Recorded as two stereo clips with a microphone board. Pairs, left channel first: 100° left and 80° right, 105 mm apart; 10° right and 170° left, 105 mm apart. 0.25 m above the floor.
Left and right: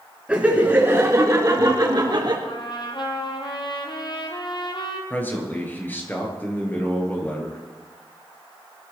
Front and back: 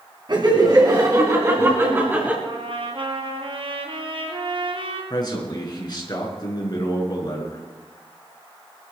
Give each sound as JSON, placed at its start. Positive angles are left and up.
{"t": 0.3, "sound": "laughter", "azimuth_deg": -155, "distance_m": 2.5}
{"t": 2.4, "sound": "a trumpet", "azimuth_deg": 140, "distance_m": 2.5}
{"t": 5.1, "sound": "a man speaking", "azimuth_deg": 30, "distance_m": 4.0}